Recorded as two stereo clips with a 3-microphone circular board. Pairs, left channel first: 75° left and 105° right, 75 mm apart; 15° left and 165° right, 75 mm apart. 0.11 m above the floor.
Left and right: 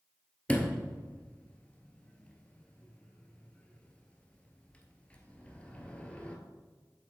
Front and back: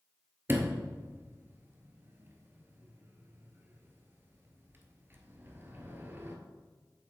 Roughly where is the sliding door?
Behind left.